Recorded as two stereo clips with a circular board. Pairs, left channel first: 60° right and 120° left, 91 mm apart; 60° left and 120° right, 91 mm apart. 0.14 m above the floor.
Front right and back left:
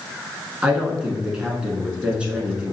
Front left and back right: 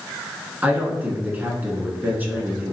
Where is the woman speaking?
170° right, 1.3 m.